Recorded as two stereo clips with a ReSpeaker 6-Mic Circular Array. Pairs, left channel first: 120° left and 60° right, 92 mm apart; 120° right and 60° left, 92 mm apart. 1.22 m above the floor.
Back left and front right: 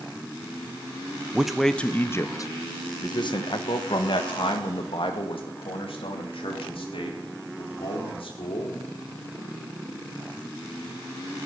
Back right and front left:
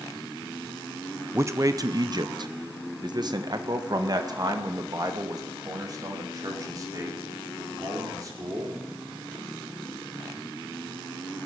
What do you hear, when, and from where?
1.3 s a man speaking: 15° left, 0.7 m; by 8.8 s 110° left, 4.5 m